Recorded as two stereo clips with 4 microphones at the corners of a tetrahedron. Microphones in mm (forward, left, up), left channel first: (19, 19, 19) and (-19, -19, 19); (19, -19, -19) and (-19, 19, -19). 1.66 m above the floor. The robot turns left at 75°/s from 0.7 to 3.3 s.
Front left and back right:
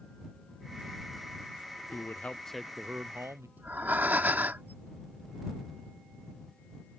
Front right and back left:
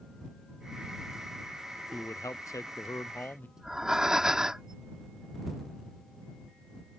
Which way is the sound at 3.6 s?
155° right.